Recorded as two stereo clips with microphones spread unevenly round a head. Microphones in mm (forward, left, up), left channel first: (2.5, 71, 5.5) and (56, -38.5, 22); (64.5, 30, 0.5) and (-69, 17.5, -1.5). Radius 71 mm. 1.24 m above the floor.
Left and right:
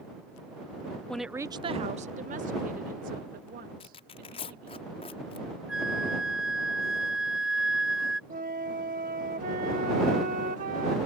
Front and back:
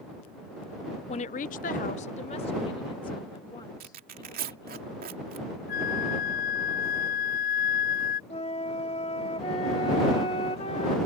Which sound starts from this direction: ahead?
A flute, at 5.7 s.